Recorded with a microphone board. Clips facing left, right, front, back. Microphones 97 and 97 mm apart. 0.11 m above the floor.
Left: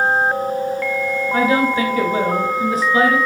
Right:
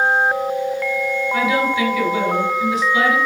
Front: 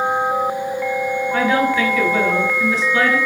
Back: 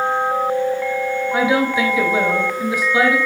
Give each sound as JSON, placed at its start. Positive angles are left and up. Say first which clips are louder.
{"t": 1.3, "sound": "a woman speaking", "louder": "left 3 dB, even", "azimuth_deg": 110, "distance_m": 1.5}